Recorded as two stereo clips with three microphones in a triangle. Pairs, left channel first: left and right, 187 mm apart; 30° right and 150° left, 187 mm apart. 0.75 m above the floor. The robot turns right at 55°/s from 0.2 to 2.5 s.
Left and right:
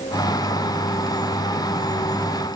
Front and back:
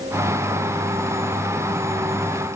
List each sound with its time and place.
Only background noise.